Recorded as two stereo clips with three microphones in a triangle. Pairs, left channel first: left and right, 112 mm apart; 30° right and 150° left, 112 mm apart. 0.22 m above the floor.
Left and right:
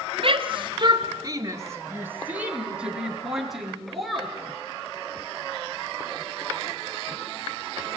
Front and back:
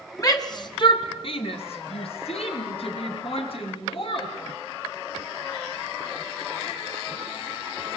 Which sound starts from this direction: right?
A shout, at 0.2 s.